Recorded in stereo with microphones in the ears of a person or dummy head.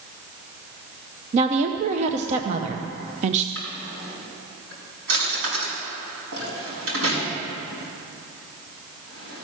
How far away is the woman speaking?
About 0.6 m.